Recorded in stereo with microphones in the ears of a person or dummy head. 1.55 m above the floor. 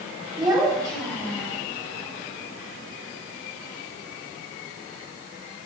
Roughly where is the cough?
No cough in this recording.